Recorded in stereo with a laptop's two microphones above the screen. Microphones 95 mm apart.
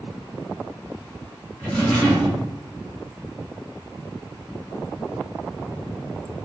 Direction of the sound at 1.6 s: 10° left (ahead or behind).